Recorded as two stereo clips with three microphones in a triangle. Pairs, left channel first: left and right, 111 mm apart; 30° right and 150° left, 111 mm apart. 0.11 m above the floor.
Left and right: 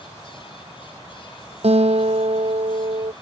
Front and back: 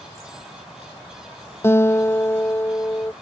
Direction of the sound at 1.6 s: 95° right.